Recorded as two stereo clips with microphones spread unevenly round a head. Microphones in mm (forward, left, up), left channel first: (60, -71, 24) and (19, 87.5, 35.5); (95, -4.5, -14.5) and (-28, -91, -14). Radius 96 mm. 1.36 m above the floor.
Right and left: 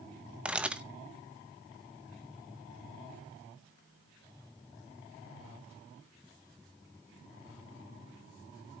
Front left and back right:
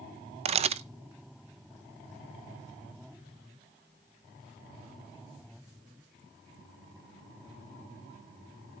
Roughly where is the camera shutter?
Behind.